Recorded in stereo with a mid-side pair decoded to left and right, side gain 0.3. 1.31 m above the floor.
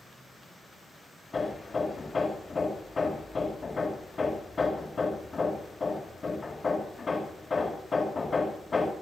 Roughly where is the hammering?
Ahead left.